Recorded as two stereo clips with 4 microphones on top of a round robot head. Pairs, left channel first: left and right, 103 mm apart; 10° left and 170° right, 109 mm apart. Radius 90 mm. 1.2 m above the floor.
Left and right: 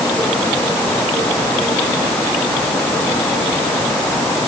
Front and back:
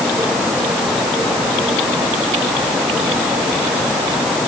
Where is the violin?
I don't hear a violin.